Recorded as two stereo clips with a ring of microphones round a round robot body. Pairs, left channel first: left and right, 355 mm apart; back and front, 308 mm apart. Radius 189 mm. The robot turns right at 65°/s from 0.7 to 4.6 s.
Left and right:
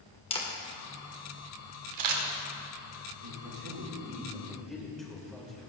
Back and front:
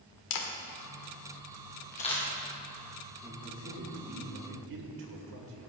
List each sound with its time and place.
0.3 s a camera shutter: 165° left, 2.0 m; by 2.2 s 95° right, 2.0 m
3.2 s a man speaking: 90° right, 3 m; by 5.7 s straight ahead, 3 m